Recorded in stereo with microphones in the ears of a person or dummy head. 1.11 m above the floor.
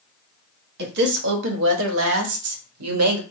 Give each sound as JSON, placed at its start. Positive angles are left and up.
{"t": 0.8, "sound": "a woman speaking", "side_deg": -55, "distance_m": 1.9}